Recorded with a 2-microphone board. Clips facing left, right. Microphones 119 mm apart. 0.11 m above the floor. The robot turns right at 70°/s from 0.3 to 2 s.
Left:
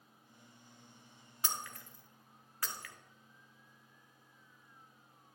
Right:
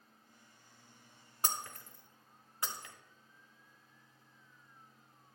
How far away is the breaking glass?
About 0.9 m.